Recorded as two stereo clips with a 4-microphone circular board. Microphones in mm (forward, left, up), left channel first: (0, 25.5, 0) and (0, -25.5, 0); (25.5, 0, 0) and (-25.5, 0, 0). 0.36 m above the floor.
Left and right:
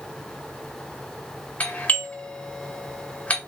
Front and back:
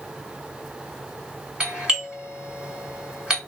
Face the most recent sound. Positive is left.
turn(degrees=125)